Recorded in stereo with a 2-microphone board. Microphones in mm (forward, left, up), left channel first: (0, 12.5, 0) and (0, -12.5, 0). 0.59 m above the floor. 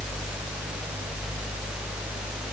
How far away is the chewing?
No chewing in this recording.